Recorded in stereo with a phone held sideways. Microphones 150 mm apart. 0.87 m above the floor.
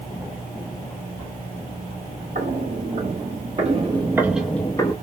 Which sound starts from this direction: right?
Footsteps, at 2.4 s.